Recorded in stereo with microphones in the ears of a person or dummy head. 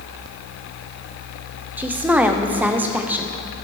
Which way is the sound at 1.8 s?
10° right (ahead or behind).